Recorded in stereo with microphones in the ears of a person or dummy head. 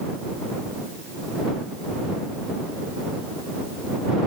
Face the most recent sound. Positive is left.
No sound to turn to.